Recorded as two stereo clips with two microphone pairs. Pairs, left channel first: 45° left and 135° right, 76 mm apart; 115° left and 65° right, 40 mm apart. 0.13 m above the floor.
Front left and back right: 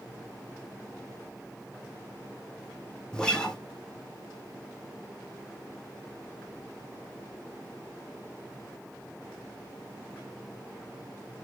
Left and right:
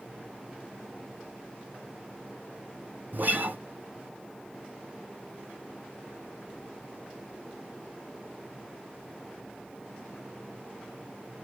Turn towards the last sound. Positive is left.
turn(degrees=-35)